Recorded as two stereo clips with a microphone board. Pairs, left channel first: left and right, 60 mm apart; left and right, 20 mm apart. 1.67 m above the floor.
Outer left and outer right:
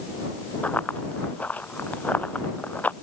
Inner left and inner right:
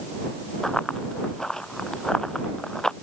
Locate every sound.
0.6 s running footsteps: 25° left (ahead or behind)